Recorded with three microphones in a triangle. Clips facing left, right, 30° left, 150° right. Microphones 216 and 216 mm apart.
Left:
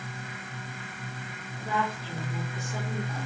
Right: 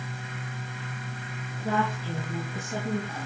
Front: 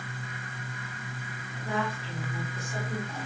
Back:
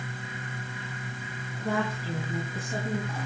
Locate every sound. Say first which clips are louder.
1.6 s a woman speaking: right 4 dB, back 3 dB; 130° right, 3.5 m; by 3.2 s 110° right, 3.5 m